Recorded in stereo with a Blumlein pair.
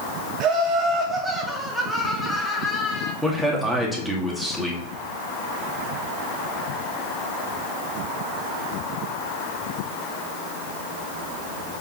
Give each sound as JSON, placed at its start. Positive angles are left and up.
{"t": 0.4, "sound": "laughter", "azimuth_deg": -30, "distance_m": 2.5}
{"t": 3.2, "sound": "a man speaking", "azimuth_deg": -5, "distance_m": 2.5}